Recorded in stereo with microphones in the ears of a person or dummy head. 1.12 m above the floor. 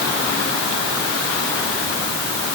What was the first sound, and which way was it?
Only background noise.